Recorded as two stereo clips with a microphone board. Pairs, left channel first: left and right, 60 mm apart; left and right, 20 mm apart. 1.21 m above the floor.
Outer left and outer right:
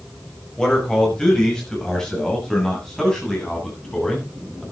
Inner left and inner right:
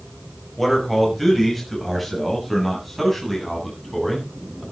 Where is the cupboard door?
I don't hear a cupboard door.